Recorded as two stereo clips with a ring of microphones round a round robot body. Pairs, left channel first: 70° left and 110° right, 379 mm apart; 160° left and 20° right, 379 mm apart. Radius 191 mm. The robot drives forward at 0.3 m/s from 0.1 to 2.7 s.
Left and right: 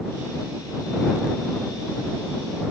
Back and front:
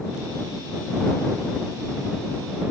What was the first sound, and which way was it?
Only background noise.